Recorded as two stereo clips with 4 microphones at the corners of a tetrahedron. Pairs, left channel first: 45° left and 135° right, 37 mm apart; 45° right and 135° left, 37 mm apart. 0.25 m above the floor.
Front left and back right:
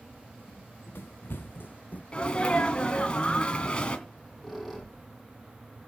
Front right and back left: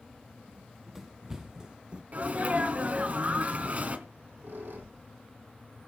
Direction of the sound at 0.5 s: 55° left.